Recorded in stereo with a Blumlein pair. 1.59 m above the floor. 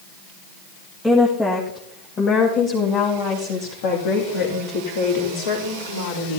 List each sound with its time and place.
1.0 s a woman speaking: 5° left, 1.8 m; by 6.4 s 65° left, 3.5 m